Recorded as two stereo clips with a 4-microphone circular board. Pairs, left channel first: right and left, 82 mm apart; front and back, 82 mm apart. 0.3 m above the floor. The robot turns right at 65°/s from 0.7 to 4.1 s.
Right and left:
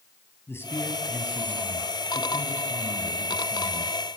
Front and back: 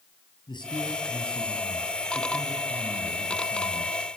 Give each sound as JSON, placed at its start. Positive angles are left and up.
{"t": 0.5, "sound": "a man speaking", "azimuth_deg": -30, "distance_m": 8.0}